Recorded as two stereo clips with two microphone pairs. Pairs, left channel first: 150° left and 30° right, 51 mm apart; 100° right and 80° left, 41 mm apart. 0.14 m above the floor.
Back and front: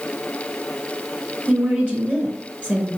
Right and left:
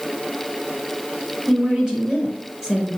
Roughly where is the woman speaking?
Ahead.